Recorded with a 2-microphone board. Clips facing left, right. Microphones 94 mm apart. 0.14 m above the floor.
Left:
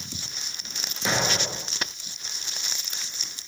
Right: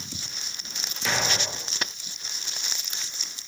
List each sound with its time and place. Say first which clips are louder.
1.1 s an explosion: left 2 dB; 25° left (ahead or behind), 0.9 m